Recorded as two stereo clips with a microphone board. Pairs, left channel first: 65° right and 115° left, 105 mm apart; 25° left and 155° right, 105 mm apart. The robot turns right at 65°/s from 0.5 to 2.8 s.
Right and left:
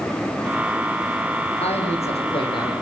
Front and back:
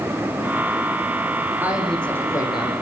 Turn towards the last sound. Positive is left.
turn(degrees=-10)